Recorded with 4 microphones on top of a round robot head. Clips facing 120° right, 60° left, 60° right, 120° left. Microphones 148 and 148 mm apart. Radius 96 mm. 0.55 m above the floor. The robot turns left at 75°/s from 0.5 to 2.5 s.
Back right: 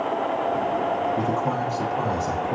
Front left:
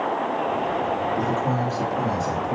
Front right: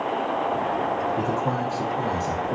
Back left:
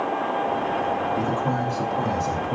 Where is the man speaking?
150° left, 1.3 m; by 2.5 s 45° left, 1.3 m.